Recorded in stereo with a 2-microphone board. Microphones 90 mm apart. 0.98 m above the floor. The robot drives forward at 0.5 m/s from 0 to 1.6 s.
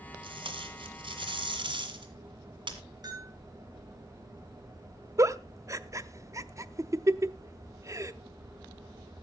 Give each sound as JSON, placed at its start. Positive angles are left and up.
{"t": 0.2, "sound": "tape being pulled", "side_deg": -70, "distance_m": 1.9}
{"t": 3.0, "sound": "a bell", "side_deg": -45, "distance_m": 7.5}
{"t": 5.2, "sound": "a giggle", "side_deg": -35, "distance_m": 0.6}